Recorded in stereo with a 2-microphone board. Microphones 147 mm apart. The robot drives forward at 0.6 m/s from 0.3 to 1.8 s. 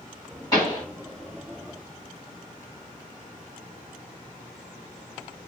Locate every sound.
0.5 s a pop: 25° left (ahead or behind), 2.5 m; by 0.8 s 30° left (ahead or behind), 2.5 m